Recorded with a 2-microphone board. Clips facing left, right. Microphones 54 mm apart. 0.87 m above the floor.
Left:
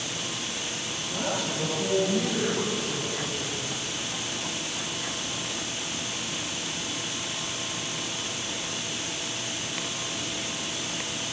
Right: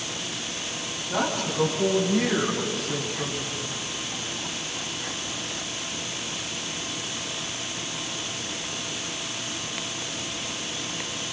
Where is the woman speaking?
60° right (ahead or behind), 7 m; by 3.5 s 55° right (ahead or behind), 9 m.